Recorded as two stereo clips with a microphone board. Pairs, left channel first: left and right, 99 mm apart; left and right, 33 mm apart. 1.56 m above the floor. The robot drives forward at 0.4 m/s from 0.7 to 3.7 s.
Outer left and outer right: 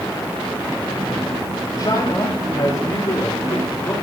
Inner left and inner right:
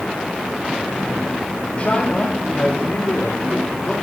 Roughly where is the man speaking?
Left.